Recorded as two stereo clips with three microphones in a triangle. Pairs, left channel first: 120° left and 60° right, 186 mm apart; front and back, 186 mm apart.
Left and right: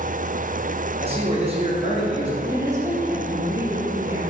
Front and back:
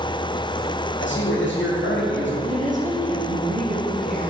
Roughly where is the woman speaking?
Behind right.